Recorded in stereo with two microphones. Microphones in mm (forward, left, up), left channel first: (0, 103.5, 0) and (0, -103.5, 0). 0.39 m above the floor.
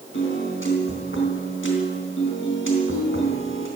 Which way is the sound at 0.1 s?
70° left (ahead or behind).